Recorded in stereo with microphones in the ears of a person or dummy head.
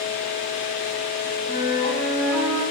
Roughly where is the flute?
Centre.